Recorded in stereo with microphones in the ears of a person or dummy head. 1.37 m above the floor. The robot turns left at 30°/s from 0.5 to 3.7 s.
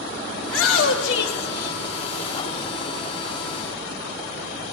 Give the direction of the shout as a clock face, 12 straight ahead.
9 o'clock.